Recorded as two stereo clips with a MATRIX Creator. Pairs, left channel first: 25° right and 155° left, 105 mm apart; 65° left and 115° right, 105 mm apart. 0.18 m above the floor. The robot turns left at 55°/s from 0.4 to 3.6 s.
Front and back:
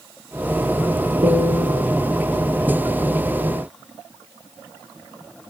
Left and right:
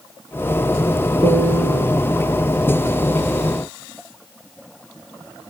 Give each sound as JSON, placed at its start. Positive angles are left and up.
{"t": 1.2, "sound": "a piano", "azimuth_deg": 150, "distance_m": 1.7}